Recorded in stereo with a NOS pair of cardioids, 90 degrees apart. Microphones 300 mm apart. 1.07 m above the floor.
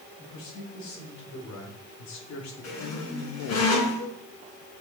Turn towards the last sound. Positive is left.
turn(degrees=60)